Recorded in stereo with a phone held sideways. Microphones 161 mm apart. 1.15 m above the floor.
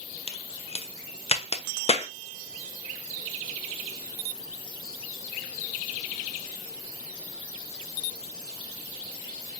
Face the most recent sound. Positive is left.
turn(degrees=40)  # may be behind; listen again after turning